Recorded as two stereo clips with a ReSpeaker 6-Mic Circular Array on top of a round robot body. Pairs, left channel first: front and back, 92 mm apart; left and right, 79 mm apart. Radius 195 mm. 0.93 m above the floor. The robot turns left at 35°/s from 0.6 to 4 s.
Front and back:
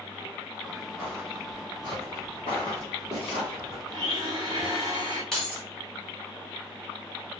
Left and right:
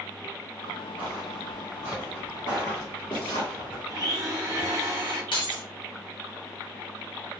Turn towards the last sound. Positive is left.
turn(degrees=85)